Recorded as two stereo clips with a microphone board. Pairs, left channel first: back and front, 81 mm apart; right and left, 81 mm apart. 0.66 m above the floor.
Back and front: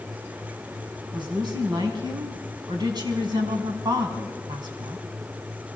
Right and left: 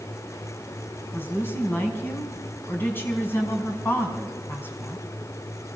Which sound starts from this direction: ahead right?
A woman speaking, at 1.1 s.